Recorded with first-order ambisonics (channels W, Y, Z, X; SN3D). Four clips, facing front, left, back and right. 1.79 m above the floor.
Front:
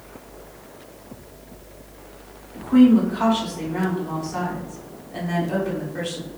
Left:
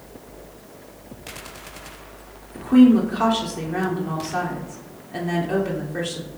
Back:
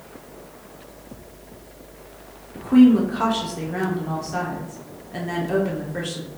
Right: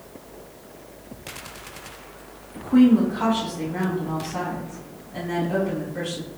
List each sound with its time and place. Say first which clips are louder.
2.5 s a woman speaking: left 2 dB, back 1 dB; 130° left, 1.2 m